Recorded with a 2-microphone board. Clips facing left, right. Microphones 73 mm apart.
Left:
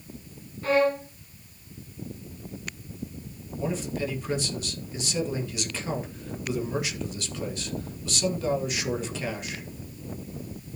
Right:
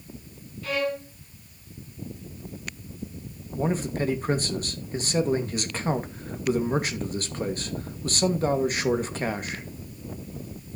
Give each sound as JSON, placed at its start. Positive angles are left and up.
{"t": 0.6, "sound": "a violin", "side_deg": 35, "distance_m": 1.5}
{"t": 3.6, "sound": "a man speaking", "side_deg": -45, "distance_m": 2.0}